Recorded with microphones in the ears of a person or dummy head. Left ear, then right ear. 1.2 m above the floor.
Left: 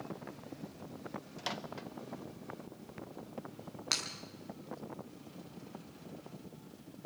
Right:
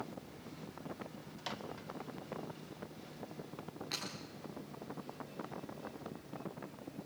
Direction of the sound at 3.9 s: 50° left (ahead or behind).